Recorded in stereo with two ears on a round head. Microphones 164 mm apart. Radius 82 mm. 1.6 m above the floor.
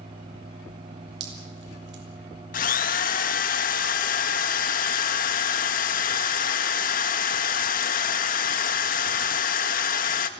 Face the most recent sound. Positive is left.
turn(degrees=50)  # may be behind; listen again after turning